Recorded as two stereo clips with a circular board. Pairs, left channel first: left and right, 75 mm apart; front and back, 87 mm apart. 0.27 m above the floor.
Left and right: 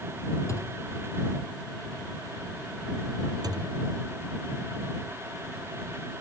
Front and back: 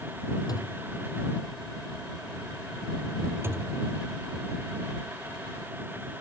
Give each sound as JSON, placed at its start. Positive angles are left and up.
{"t": 0.5, "sound": "a thud", "azimuth_deg": 40}
{"t": 3.4, "sound": "a thud", "azimuth_deg": -120}